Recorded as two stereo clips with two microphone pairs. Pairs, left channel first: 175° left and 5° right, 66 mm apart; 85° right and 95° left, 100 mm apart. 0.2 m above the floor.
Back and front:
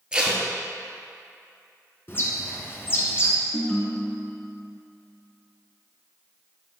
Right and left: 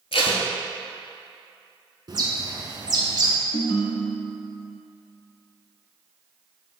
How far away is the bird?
About 1.0 m.